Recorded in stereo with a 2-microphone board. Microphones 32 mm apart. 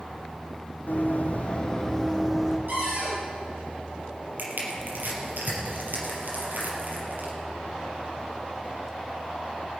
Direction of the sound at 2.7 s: 60° right (ahead or behind).